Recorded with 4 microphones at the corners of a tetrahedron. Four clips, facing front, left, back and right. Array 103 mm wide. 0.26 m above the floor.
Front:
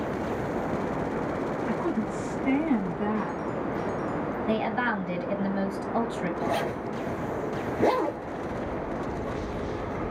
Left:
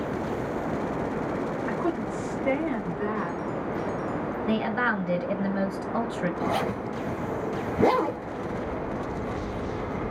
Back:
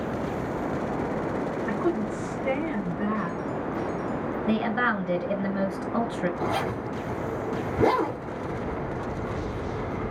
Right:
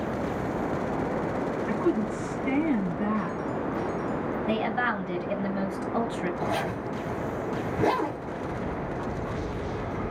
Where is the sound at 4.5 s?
130° left, 3 m.